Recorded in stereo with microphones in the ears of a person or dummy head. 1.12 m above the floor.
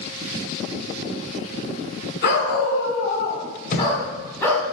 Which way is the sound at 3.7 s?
45° left (ahead or behind).